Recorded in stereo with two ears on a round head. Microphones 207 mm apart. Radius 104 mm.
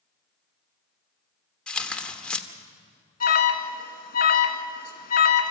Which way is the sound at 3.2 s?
35° left (ahead or behind).